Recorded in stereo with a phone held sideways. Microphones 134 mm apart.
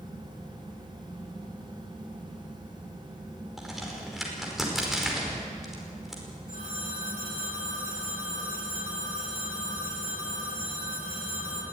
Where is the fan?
35° right (ahead or behind), 5.5 m.